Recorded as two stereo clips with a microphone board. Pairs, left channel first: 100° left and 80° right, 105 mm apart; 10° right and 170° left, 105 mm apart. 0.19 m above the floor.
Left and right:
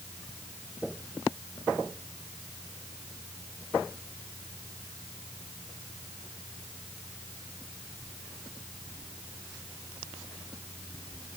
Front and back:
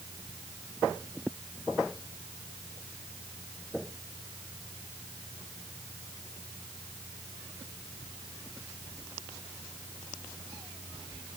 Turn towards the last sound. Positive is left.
No sound to turn to.